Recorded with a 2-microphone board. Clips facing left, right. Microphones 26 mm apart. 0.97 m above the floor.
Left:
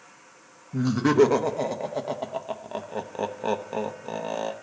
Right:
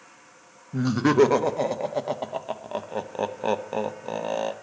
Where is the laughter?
15° right (ahead or behind), 0.7 m.